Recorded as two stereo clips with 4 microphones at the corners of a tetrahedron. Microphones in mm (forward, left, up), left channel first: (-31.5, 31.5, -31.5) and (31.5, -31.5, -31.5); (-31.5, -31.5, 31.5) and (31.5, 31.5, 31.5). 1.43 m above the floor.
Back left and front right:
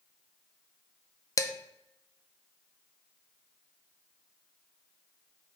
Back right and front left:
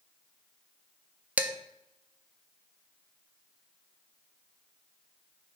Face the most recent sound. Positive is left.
turn(degrees=110)